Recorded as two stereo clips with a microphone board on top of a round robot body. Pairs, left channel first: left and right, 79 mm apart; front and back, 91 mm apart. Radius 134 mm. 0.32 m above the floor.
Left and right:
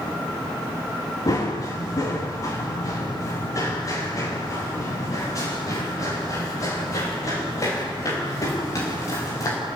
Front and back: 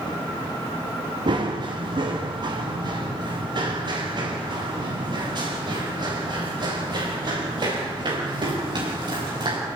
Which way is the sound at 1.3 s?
140° left.